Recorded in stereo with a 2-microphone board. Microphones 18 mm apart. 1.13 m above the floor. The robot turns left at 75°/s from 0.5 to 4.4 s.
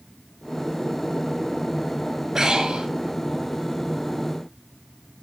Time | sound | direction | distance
2.4 | breathing | 30° right | 5.5 m